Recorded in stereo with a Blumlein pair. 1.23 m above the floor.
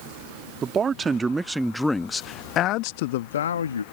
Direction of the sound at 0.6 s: 20° right.